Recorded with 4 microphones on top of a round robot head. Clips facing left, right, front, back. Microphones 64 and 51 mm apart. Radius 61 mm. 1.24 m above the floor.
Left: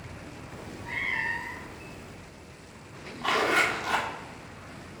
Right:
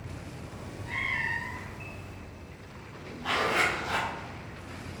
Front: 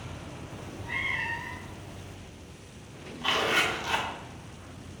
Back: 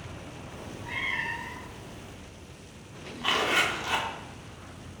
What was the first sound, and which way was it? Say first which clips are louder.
A cat meowing: left 1 dB, front 1 dB; 135° left.